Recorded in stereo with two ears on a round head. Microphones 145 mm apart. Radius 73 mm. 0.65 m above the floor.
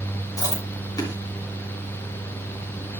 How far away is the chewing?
About 7 m.